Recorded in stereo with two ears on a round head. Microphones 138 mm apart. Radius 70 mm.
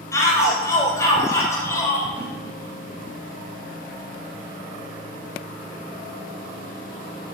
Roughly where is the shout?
Centre.